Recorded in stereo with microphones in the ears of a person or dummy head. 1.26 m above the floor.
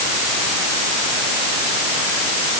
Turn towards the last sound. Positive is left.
No sound to turn to.